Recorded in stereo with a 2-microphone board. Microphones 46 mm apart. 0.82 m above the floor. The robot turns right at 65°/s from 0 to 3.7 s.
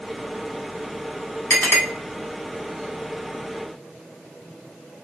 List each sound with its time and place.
1.5 s a clink: 40° left (ahead or behind), 1.0 m; by 1.8 s 60° left (ahead or behind), 1.0 m